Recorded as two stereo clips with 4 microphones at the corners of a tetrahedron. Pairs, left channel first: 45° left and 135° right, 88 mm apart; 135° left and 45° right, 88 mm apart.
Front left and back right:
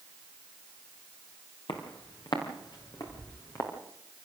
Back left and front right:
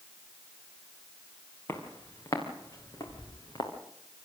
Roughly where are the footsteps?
Left.